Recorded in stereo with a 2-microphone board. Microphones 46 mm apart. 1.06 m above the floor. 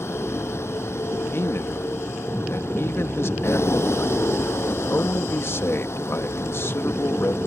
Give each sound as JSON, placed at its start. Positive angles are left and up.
{"t": 0.0, "sound": "a vehicle", "side_deg": 80}
{"t": 1.3, "sound": "a man speaking", "side_deg": 70}